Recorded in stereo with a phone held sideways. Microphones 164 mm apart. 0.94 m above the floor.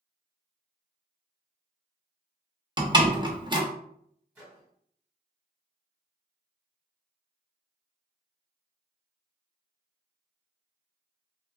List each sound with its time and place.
2.8 s a door slam: 25° right (ahead or behind), 0.7 m
4.3 s a microwave: 10° right (ahead or behind), 1.7 m